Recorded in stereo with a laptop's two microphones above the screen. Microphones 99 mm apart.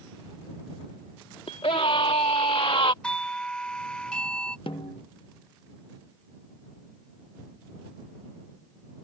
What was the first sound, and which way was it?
A scream, 70° left (ahead or behind).